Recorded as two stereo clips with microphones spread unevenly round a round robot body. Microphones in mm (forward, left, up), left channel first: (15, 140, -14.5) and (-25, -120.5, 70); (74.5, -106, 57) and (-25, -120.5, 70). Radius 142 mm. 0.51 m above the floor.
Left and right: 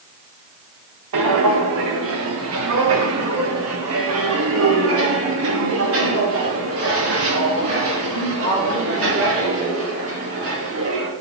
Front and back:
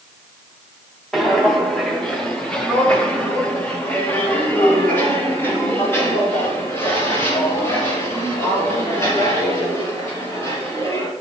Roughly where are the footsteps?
Right.